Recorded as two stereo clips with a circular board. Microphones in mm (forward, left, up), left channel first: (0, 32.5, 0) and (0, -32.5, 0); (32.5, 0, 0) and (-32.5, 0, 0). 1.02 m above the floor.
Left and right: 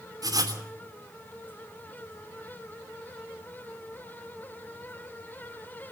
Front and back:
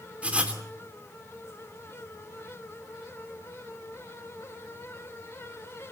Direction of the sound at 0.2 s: 110° right.